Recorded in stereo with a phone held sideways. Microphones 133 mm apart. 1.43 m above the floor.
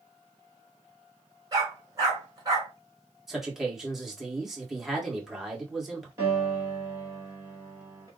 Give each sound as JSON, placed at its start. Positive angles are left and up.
{"t": 1.5, "sound": "a dog barking", "side_deg": -30, "distance_m": 3.0}
{"t": 3.3, "sound": "a man speaking", "side_deg": -5, "distance_m": 1.8}
{"t": 6.2, "sound": "a piano", "side_deg": -25, "distance_m": 2.5}